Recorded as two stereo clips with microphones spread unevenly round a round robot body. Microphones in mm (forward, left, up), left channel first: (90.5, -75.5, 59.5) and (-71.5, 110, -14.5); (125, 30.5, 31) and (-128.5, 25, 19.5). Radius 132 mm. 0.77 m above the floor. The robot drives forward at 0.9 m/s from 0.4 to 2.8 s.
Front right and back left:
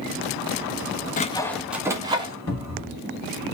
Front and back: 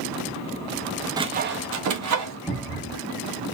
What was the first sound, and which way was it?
Sawing, 115° right.